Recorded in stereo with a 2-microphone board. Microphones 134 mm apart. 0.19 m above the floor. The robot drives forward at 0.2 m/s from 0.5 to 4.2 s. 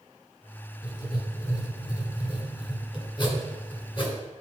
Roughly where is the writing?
Left.